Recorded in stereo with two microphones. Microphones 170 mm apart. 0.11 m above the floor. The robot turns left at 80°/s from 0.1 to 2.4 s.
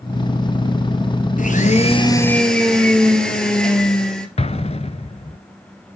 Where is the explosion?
40° left (ahead or behind), 0.7 m.